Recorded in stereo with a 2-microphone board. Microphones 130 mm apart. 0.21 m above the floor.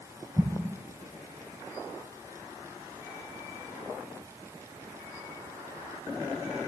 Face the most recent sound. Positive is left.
turn(degrees=-15)  # may be behind; listen again after turning